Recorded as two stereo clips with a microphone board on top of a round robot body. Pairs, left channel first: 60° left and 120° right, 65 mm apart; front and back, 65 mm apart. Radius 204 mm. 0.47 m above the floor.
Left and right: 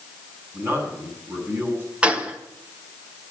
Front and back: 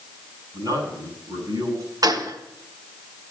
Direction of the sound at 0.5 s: Straight behind.